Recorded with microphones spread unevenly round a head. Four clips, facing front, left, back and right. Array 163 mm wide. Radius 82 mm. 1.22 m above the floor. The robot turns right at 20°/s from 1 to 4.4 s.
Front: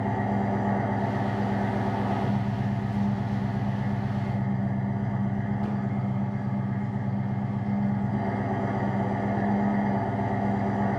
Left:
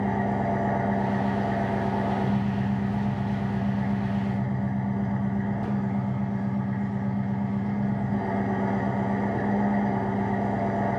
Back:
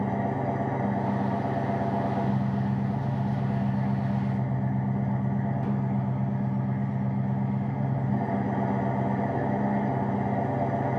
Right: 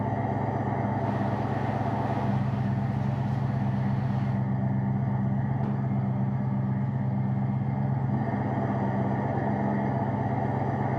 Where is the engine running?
75° left, 1.7 m; by 11.0 s 145° left, 1.7 m.